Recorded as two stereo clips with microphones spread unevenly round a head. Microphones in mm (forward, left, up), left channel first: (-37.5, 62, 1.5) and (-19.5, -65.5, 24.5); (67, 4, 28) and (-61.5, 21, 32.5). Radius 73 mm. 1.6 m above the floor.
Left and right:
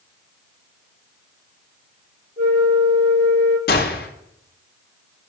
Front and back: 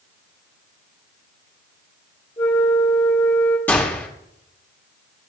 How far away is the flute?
About 2.5 m.